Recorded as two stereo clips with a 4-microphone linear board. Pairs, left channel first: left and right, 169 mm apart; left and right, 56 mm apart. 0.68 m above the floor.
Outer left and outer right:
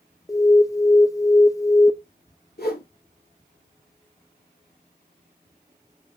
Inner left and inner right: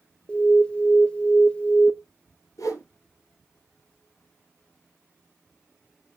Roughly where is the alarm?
Centre.